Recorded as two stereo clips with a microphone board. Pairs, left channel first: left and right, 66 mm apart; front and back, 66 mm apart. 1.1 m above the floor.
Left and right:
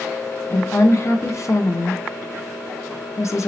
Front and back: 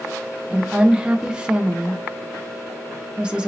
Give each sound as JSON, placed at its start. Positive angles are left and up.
{"t": 0.5, "sound": "a woman speaking", "azimuth_deg": 105, "distance_m": 0.9}